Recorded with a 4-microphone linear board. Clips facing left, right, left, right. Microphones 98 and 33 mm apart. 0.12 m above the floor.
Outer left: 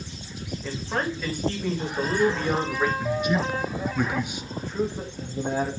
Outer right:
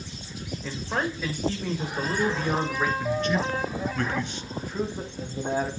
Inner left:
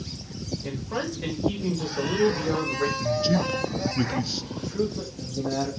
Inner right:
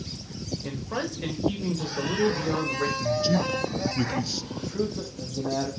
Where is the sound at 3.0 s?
10° left (ahead or behind), 1.5 m.